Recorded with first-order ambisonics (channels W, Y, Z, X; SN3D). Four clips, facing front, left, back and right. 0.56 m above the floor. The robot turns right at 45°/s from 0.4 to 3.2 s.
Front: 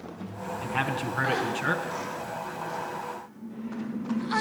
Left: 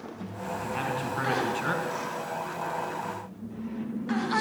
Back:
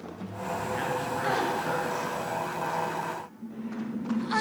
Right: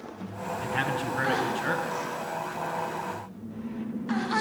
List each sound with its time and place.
0.6 s a man speaking: 15° right, 5.5 m; by 1.9 s 45° left, 5.5 m